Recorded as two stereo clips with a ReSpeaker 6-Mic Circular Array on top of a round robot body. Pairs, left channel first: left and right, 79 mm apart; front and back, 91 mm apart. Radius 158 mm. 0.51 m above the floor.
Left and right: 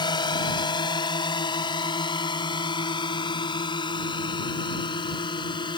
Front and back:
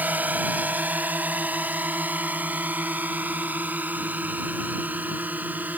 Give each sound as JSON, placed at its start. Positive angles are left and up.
{"t": 0.0, "sound": "a drone", "azimuth_deg": 110}